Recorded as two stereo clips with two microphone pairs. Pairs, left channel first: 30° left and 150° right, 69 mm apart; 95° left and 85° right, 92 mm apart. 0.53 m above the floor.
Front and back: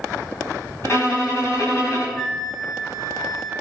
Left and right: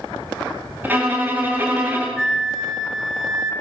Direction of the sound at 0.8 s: 20° right.